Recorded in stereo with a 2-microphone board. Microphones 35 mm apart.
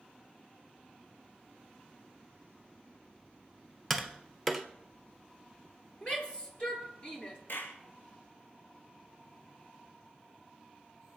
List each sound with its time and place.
3.9 s tapping: 5° left (ahead or behind), 1.2 m
6.0 s a shout: 30° left (ahead or behind), 4 m
7.5 s a clap: 70° left (ahead or behind), 2.5 m